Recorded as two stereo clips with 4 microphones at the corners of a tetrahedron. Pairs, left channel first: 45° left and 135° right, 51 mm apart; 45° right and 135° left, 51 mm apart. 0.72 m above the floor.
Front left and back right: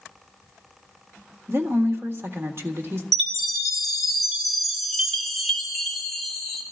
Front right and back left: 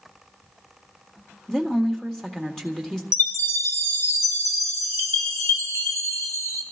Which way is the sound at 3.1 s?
45° right.